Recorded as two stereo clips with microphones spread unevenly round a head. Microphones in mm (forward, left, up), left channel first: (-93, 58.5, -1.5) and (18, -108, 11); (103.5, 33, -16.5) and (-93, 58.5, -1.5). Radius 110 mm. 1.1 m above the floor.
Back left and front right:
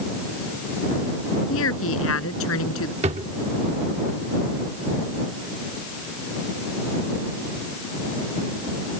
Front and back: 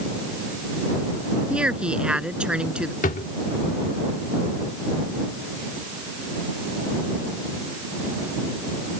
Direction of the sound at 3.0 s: 30° right.